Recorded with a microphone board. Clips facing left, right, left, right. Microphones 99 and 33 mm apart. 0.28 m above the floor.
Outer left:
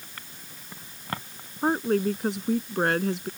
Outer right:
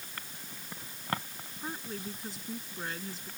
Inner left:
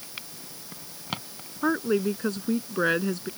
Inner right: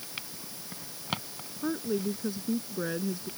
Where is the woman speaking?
70° left (ahead or behind).